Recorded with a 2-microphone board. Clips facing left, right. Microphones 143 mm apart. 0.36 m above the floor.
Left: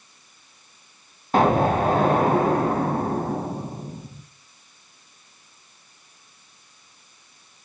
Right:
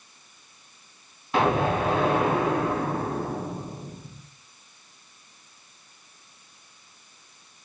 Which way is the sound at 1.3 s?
45° left (ahead or behind).